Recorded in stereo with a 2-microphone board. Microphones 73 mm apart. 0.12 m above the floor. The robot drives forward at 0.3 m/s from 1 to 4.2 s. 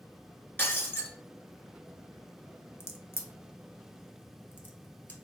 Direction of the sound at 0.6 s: 30° left (ahead or behind).